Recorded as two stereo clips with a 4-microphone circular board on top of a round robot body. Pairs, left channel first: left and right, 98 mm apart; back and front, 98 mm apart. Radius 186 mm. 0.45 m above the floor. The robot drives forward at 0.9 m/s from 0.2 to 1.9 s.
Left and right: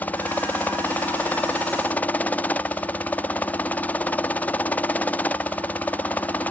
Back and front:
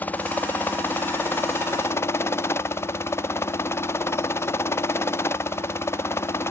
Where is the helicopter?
135° left; by 6.5 s 150° left.